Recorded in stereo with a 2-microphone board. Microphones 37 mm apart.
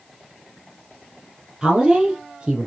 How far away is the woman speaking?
About 3.5 m.